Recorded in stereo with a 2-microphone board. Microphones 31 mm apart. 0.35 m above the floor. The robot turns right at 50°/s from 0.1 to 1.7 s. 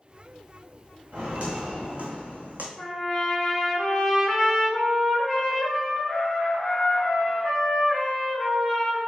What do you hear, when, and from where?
1.1 s footsteps: 50° right (ahead or behind), 1.4 m; by 2.7 s 75° right (ahead or behind), 1.1 m
2.8 s a trumpet: 10° left (ahead or behind), 1.2 m